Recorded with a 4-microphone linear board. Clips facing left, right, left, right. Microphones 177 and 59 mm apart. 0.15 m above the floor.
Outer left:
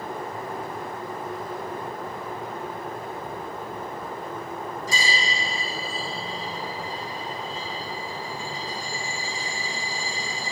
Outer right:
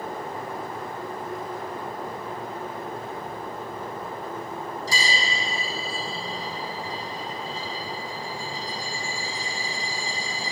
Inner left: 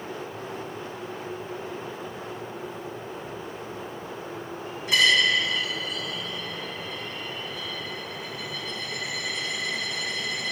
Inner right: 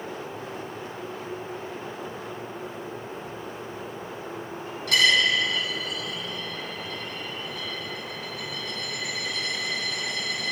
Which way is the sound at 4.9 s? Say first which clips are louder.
Even, even; 80° right.